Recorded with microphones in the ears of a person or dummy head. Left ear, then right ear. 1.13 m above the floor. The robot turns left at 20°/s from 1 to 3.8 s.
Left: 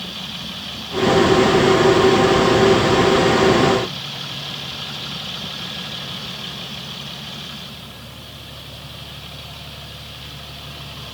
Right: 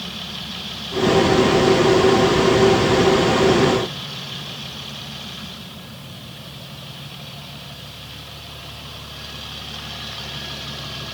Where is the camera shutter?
I don't hear a camera shutter.